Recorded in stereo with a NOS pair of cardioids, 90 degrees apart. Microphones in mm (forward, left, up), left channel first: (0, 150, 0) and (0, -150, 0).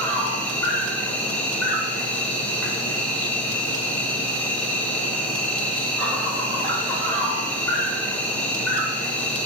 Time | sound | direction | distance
0.0 | an insect | 5° left | 0.9 m